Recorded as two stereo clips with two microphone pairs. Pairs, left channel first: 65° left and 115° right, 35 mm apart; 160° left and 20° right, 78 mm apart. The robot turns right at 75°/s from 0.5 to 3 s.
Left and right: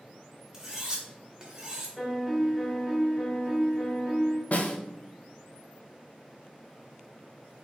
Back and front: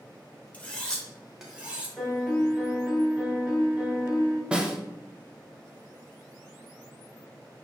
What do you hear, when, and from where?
0.5 s cutlery clinking: 165° right, 0.7 m; by 1.9 s 70° right, 0.7 m
2.0 s a piano: 130° right, 1.0 m; by 4.4 s 50° right, 1.0 m
4.5 s a snare drum: 60° left, 0.5 m